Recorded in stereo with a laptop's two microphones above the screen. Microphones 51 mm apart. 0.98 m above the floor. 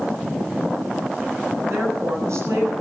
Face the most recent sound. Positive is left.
turn(degrees=-75)  # may be behind; listen again after turning